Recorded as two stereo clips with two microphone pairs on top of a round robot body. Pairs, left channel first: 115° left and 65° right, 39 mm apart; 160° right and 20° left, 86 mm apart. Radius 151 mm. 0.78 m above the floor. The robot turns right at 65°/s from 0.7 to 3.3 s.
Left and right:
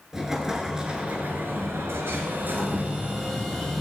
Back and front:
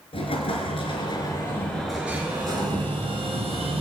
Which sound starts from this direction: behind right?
An explosion, at 0.1 s.